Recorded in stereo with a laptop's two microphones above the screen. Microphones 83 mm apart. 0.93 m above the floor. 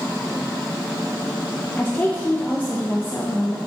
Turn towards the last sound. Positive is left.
turn(degrees=25)  # may be behind; listen again after turning